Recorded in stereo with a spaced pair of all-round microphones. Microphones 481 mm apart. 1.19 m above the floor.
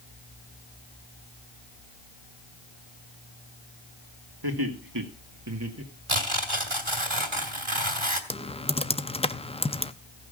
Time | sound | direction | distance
4.4 | laughter | 50° right (ahead or behind) | 2 m
6.1 | tearing paper | 75° right (ahead or behind) | 2 m
8.3 | typing on a keyboard | 15° left (ahead or behind) | 0.6 m